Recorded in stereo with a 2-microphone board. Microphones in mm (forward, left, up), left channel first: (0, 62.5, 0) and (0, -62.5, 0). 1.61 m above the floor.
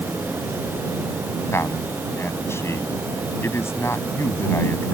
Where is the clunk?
I don't hear a clunk.